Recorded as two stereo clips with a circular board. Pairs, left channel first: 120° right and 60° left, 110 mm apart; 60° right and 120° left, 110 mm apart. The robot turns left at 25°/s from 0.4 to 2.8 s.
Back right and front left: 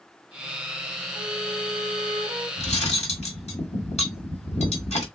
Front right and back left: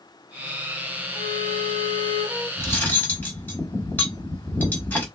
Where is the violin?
10° right, 1.4 m; by 2.5 s 45° right, 1.4 m.